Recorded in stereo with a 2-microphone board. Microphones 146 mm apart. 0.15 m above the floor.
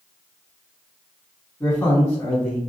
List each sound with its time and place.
1.6 s a man speaking: 20° left (ahead or behind), 1.3 m